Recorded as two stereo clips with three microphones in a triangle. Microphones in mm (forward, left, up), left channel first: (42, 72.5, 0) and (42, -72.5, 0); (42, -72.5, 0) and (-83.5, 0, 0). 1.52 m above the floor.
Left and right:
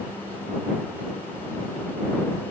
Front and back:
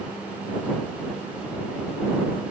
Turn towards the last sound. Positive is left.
No sound to turn to.